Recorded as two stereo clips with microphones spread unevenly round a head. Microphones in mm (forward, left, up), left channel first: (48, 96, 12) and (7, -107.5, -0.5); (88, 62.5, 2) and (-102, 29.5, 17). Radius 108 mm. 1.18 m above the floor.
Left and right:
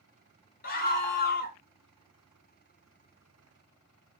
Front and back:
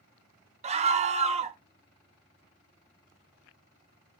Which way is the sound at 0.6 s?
130° left.